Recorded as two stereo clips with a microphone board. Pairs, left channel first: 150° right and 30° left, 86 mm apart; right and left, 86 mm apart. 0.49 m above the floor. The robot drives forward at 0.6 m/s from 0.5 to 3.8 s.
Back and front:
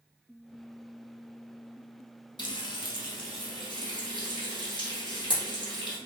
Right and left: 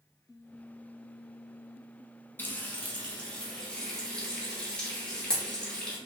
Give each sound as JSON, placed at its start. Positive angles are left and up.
{"t": 2.4, "sound": "frying", "azimuth_deg": -155, "distance_m": 0.7}